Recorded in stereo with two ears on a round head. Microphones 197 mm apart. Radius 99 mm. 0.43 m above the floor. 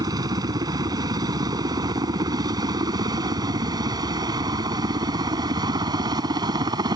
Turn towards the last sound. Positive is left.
turn(degrees=-20)  # may be behind; listen again after turning